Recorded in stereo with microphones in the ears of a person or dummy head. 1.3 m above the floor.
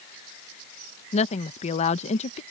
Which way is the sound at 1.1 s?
35° left (ahead or behind).